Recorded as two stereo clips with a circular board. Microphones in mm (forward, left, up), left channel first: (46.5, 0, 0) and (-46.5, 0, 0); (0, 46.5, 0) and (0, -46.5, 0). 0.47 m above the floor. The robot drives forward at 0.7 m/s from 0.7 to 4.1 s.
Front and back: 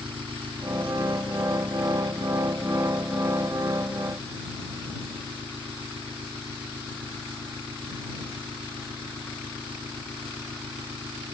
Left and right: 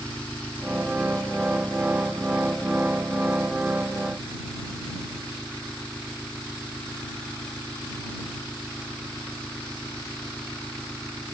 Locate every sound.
0.0 s an engine running: 165° left; by 11.3 s 170° left